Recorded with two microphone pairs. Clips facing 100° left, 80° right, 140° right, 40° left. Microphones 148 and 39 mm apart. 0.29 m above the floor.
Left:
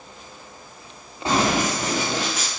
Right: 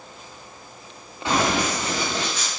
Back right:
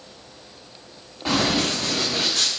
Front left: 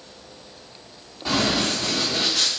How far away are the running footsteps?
About 1.4 m.